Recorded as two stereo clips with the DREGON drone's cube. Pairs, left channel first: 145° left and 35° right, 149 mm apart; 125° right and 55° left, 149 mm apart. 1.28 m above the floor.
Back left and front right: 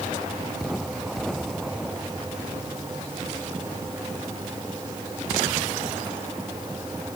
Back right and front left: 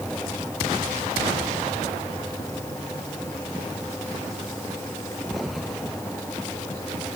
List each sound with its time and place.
Only background noise.